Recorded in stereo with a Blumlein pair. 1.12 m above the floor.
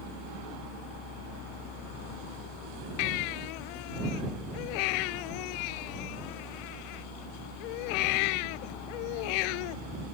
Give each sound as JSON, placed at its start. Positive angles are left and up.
{"t": 0.0, "sound": "a fan", "azimuth_deg": 20}
{"t": 3.0, "sound": "a baby crying", "azimuth_deg": 45}